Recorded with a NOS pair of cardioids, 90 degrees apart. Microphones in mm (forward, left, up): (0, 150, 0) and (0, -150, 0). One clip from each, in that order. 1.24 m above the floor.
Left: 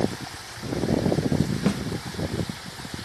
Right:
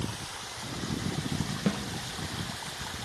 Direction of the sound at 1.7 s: 20° left.